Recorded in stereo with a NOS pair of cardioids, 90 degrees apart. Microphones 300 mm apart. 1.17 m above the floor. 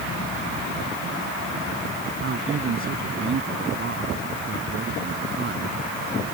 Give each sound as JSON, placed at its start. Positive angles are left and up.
{"t": 2.2, "sound": "a man speaking", "azimuth_deg": -45}